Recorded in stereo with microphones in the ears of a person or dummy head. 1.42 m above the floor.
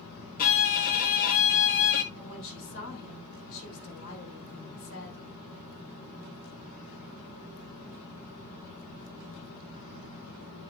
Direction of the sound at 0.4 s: 45° left (ahead or behind).